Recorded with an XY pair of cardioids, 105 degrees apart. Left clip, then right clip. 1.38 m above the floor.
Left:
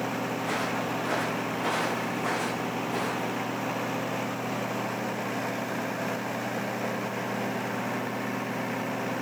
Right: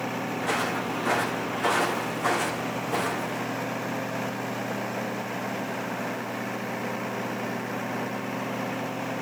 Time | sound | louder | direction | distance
0.4 | footsteps | right 4 dB | 50° right | 5.5 m